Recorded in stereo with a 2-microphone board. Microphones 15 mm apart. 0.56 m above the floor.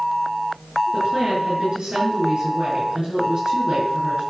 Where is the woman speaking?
65° right (ahead or behind), 7 m.